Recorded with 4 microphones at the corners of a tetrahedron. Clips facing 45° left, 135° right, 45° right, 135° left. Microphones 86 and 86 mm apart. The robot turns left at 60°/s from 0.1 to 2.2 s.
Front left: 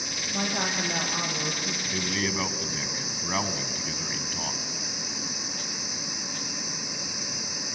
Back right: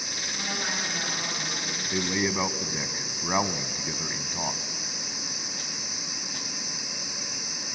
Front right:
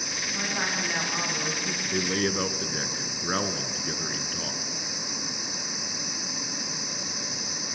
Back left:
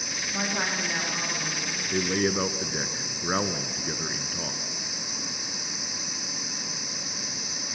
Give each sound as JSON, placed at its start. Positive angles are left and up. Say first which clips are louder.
{"t": 0.3, "sound": "a woman speaking", "louder": "front left 4 dB, back left 1 dB", "azimuth_deg": 75, "distance_m": 8.0}
{"t": 1.9, "sound": "a man speaking", "louder": "back right 3 dB, back left 2 dB", "azimuth_deg": -140, "distance_m": 1.0}